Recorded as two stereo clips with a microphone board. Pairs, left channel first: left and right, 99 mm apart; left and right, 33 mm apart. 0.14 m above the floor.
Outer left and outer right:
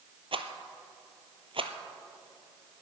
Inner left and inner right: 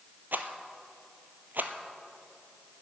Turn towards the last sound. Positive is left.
turn(degrees=-65)  # may be behind; listen again after turning